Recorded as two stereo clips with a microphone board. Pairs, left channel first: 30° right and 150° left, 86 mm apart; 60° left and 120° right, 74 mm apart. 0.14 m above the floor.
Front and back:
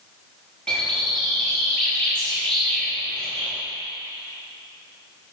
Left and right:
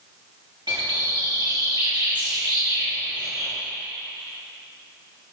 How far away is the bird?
About 6 m.